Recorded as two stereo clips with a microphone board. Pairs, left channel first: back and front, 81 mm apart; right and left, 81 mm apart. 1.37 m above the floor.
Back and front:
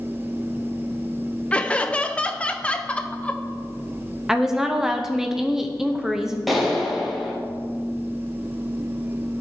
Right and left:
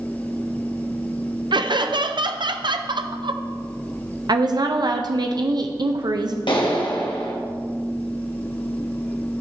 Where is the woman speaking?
80° left, 0.6 m.